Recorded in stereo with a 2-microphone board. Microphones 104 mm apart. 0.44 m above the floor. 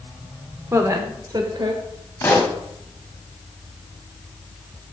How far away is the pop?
About 1.1 m.